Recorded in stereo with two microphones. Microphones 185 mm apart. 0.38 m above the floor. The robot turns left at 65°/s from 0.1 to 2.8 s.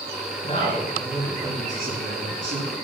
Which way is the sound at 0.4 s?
40° left.